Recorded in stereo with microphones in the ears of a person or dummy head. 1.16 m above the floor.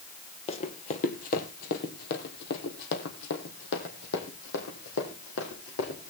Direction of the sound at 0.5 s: 40° left (ahead or behind).